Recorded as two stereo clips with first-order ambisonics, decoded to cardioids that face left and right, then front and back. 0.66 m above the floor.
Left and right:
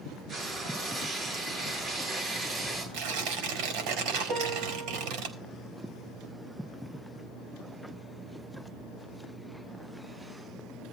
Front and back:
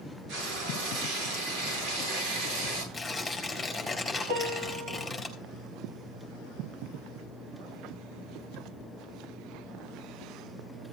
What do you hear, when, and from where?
0.3 s frying: 155° right, 10 m
2.9 s tearing paper: 85° right, 5 m
4.3 s a piano: 150° right, 7 m